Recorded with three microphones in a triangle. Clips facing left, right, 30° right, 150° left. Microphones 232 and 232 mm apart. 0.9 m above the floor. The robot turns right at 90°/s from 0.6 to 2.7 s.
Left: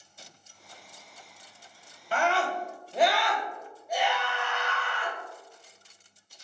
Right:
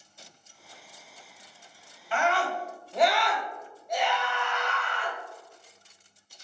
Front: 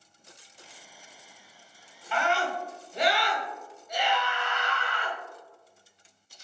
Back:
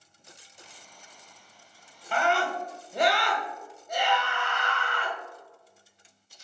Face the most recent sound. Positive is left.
turn(degrees=175)